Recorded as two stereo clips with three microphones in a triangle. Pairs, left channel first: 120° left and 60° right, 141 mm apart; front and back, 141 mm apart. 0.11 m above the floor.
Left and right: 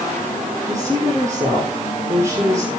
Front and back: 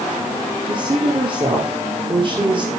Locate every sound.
0.7 s a woman speaking: 130° right, 5 m